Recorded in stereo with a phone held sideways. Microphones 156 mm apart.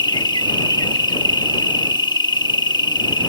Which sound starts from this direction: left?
An insect, at 0.0 s.